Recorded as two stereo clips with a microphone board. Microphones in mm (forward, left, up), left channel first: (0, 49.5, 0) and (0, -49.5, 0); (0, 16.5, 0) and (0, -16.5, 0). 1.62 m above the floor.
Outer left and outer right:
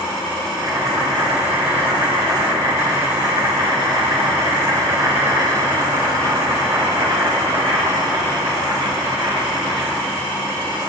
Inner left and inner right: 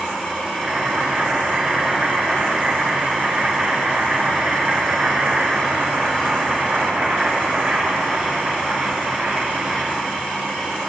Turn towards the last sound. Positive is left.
turn(degrees=-50)  # may be behind; listen again after turning